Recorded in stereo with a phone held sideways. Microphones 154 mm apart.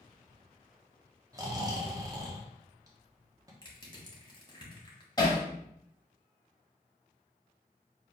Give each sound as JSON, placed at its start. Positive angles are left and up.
{"t": 1.3, "sound": "snoring", "side_deg": -25, "distance_m": 1.0}
{"t": 3.6, "sound": "crushing", "side_deg": 30, "distance_m": 1.5}
{"t": 5.2, "sound": "hammering", "side_deg": 25, "distance_m": 1.8}